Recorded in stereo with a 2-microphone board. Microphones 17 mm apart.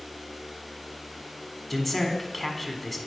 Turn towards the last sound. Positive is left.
turn(degrees=15)  # may be behind; listen again after turning